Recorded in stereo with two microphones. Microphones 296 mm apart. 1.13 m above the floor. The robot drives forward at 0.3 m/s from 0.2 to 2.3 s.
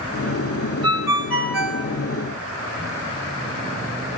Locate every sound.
0.8 s a ringtone: 65° left (ahead or behind), 2.5 m; by 1.8 s 55° left (ahead or behind), 2.5 m